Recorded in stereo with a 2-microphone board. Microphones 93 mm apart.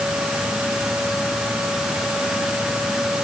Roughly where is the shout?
I don't hear a shout.